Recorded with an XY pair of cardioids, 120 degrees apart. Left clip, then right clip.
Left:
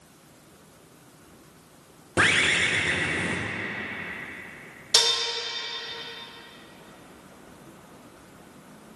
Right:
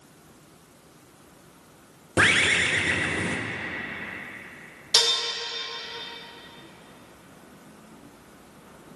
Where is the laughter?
No laughter in this recording.